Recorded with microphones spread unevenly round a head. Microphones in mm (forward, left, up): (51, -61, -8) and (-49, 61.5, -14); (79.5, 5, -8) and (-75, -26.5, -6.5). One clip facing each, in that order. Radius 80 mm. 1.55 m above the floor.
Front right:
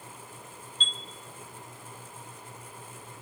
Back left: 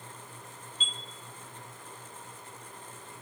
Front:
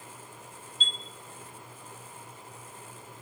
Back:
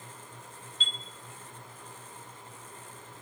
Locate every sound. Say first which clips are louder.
0.8 s a chime: front right 2 dB, front 2 dB; 150° right, 0.8 m